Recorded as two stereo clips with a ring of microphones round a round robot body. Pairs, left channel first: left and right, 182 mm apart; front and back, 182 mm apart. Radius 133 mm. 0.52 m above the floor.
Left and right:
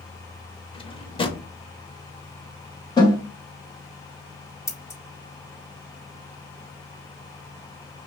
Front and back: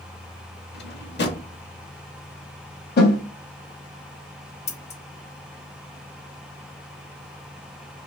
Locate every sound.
0.7 s a drawer: 25° left, 1.0 m
3.0 s a snare drum: 25° left, 2.0 m
4.7 s scissors: 25° left, 1.3 m